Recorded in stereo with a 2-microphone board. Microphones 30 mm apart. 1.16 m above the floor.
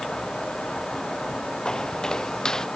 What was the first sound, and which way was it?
Footsteps, 25° left (ahead or behind).